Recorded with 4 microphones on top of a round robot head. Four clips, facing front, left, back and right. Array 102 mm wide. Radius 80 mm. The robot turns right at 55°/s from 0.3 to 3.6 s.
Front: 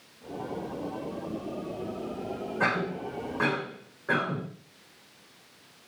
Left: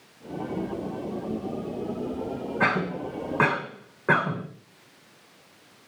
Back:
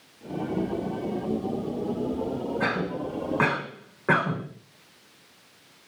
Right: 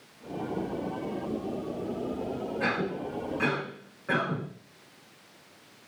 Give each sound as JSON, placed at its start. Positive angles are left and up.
{"t": 2.6, "sound": "a cough", "azimuth_deg": 80, "distance_m": 5.5}